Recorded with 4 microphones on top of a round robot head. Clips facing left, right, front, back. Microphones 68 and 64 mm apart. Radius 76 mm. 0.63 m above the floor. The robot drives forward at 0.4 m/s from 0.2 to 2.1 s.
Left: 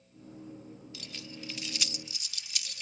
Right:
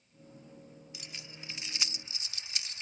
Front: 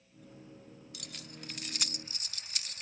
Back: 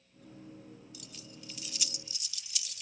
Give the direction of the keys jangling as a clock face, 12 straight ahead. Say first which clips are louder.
Left 4 dB, front 2 dB; 1 o'clock.